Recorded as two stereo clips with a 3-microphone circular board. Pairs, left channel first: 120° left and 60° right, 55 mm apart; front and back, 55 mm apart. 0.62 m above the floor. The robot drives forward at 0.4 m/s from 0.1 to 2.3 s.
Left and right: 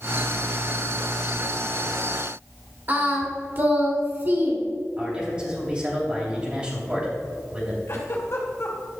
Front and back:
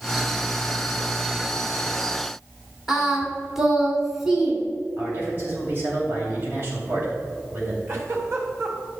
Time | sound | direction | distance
2.9 | singing | 95° right | 1.7 m
5.0 | a man speaking | 130° right | 3 m
7.9 | a giggle | 145° left | 2 m